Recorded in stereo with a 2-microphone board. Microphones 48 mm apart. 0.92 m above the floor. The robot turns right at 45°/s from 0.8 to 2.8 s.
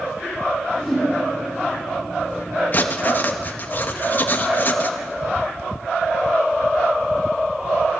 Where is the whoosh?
5° left (ahead or behind), 8 m; by 1.1 s 10° right (ahead or behind), 8 m.